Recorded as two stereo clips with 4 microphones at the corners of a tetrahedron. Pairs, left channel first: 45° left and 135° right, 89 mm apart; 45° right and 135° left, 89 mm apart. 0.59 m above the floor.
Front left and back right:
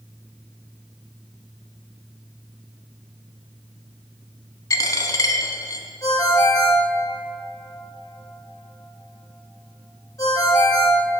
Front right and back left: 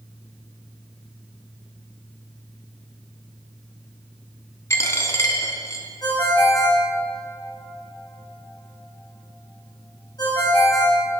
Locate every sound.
4.7 s a dropped coin: 5° left, 0.8 m
6.0 s a ringtone: 5° right, 1.9 m